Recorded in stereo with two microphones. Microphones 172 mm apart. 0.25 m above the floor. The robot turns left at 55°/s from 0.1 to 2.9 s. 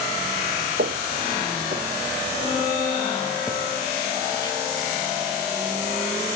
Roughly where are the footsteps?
Right.